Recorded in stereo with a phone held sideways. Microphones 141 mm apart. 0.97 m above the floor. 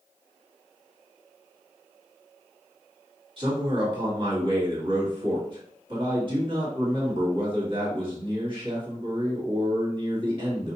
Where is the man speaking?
40° right (ahead or behind), 1.7 m.